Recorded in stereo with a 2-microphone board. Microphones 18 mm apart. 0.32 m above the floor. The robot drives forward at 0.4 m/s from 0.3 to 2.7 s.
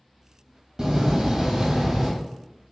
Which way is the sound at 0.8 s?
40° right (ahead or behind).